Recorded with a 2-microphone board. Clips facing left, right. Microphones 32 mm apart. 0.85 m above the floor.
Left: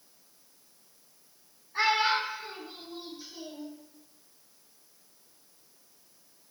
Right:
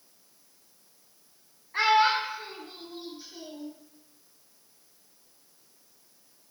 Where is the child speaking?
65° right (ahead or behind), 0.7 m; by 3.7 s 5° left (ahead or behind), 1.1 m.